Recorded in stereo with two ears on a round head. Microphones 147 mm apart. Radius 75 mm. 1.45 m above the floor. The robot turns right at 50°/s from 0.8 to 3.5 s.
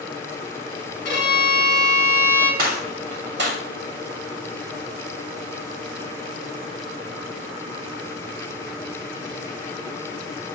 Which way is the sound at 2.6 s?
60° right (ahead or behind).